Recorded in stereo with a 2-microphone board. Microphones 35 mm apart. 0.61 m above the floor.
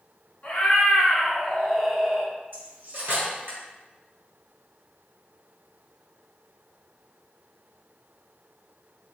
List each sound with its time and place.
0.4 s a cat meowing: 40° left (ahead or behind), 1.4 m; by 2.3 s 40° right (ahead or behind), 0.5 m
2.5 s cutlery clinking: 70° right (ahead or behind), 1.3 m